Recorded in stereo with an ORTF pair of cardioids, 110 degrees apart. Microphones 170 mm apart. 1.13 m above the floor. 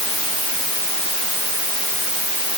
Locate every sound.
Only background noise.